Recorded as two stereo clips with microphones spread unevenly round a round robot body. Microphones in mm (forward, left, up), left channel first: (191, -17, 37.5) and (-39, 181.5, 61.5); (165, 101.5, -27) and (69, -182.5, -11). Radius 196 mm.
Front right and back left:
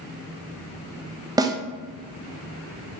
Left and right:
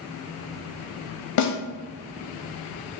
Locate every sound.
1.4 s a snare drum: 60° left, 0.5 m